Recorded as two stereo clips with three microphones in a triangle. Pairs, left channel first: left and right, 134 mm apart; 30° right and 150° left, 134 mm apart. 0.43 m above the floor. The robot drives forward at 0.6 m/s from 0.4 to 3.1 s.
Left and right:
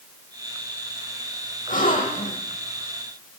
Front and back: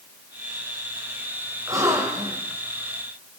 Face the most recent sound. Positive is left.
turn(degrees=90)